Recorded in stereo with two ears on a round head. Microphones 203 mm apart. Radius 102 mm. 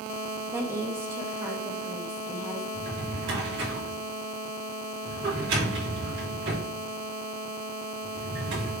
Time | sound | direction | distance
0.5 | a woman speaking | 10° right (ahead or behind) | 0.7 m
2.7 | a drawer | 55° right (ahead or behind) | 2.5 m